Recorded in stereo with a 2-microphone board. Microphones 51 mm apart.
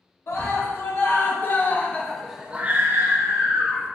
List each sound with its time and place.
0.3 s a scream: 55° left (ahead or behind), 1.4 m; by 3.9 s 70° right (ahead or behind), 1.0 m